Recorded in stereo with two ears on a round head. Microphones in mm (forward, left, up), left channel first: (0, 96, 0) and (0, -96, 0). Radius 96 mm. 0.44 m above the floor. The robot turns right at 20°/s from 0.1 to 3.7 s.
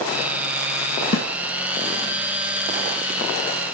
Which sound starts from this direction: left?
A snare drum, at 1.1 s.